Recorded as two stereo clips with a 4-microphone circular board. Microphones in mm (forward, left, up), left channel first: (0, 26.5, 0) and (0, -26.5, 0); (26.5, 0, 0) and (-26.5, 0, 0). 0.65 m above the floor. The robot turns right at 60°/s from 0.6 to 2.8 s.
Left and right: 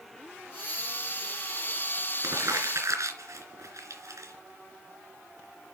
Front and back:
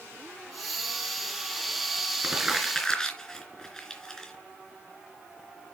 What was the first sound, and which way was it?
Crumpling, 110° right.